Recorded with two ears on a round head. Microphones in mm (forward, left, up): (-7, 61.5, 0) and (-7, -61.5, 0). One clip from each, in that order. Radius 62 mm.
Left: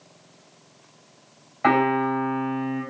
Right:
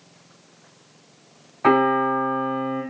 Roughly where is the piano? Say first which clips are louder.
Right 2 dB; left.